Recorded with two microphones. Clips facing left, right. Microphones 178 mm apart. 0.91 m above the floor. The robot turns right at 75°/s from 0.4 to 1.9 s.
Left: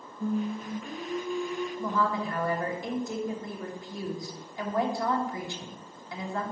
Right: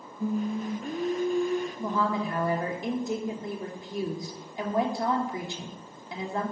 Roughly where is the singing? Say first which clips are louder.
Right 1 dB; behind.